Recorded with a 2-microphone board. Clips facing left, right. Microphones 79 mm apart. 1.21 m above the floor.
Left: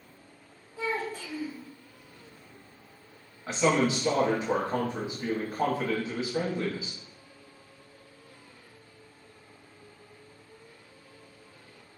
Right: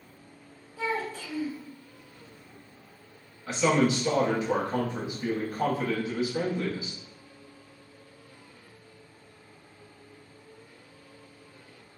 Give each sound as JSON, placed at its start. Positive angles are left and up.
{"t": 0.8, "sound": "a child speaking", "side_deg": 15, "distance_m": 1.3}
{"t": 3.5, "sound": "a man speaking", "side_deg": 25, "distance_m": 1.0}